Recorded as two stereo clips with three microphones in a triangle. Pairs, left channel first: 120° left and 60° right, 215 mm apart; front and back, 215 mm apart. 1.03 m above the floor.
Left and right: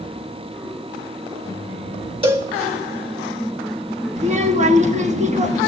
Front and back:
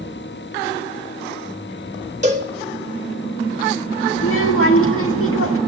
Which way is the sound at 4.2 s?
Straight ahead.